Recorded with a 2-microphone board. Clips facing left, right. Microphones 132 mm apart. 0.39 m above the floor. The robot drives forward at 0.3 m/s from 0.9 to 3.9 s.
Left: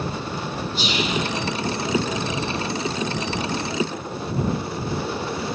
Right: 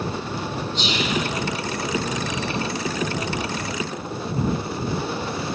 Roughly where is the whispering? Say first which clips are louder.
Left 1 dB; centre.